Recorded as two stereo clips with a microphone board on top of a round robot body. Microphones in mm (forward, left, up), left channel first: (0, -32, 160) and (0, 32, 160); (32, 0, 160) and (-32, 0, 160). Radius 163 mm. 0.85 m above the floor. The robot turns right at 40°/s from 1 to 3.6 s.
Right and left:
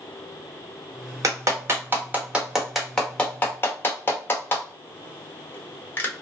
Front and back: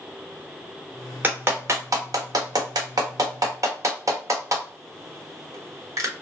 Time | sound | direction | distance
1.2 | a clap | 120° left | 0.9 m